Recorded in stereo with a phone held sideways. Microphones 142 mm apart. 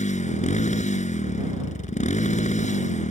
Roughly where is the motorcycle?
Left.